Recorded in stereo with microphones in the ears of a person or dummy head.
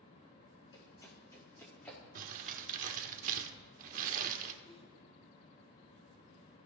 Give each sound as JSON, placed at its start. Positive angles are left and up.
{"t": 0.7, "sound": "running footsteps", "side_deg": 25, "distance_m": 4.0}
{"t": 2.1, "sound": "crumpling", "side_deg": -45, "distance_m": 1.3}
{"t": 4.6, "sound": "a whoosh", "side_deg": 25, "distance_m": 8.5}